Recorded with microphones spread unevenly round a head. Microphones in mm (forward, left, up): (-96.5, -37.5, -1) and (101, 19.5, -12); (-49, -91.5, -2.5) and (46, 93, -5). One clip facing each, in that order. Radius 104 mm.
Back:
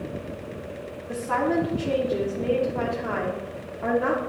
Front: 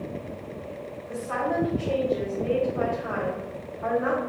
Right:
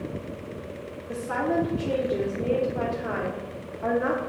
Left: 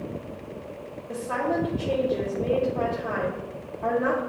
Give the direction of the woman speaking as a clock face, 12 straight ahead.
6 o'clock.